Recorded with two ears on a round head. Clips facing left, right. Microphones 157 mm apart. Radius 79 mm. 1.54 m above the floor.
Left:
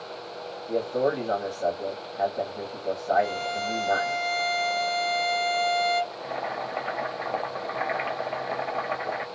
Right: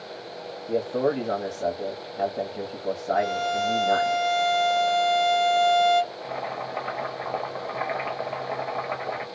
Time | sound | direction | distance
0.7 | a man speaking | 35° right (ahead or behind) | 0.9 m
3.1 | a violin | 40° right (ahead or behind) | 1.7 m
6.1 | boiling | centre (ahead or behind) | 1.0 m